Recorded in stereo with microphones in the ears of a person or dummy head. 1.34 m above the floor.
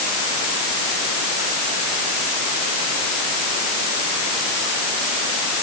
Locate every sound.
Only background noise.